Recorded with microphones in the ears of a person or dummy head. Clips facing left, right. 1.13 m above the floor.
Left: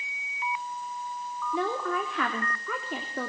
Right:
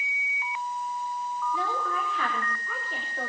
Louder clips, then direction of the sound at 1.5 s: Left 7 dB; 60° left (ahead or behind).